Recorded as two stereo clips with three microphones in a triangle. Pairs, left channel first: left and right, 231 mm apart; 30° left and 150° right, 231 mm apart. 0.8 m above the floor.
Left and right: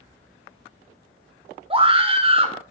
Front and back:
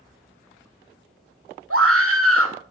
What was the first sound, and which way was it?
A scream, 155° right.